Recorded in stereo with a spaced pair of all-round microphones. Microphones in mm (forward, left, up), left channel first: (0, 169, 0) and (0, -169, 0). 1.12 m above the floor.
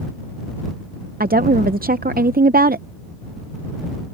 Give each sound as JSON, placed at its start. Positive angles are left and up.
{"t": 1.2, "sound": "a woman speaking", "side_deg": -25}